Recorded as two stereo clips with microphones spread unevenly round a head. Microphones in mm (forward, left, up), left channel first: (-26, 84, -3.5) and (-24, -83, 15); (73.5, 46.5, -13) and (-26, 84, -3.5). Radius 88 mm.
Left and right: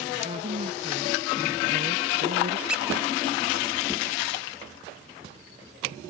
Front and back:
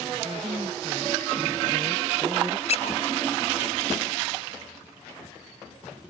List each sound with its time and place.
0.2 s a woman speaking: 140° right; by 2.6 s 135° right
2.7 s a squeak: 5° right